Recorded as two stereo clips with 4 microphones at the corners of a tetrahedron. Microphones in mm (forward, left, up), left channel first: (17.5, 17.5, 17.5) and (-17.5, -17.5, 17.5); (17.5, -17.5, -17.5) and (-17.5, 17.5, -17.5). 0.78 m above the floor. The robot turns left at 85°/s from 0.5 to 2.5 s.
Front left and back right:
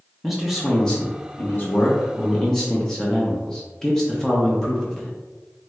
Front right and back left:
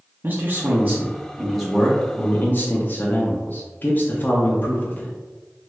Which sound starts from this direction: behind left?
A man speaking, at 0.2 s.